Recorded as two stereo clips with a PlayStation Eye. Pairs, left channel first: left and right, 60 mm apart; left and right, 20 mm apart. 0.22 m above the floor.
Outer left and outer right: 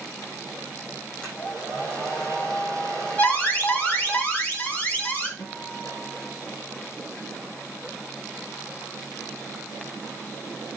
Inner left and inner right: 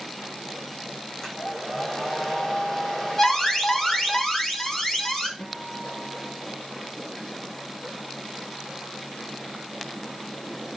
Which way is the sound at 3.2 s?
30° left (ahead or behind).